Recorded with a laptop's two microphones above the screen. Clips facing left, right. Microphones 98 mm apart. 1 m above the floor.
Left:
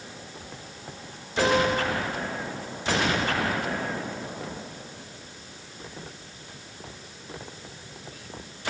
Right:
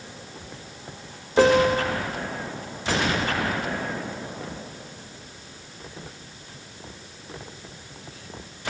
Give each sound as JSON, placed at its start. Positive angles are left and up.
{"t": 1.4, "sound": "a piano", "side_deg": -55, "distance_m": 1.2}